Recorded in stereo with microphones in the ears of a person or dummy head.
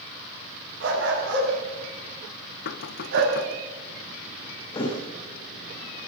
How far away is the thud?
About 6 m.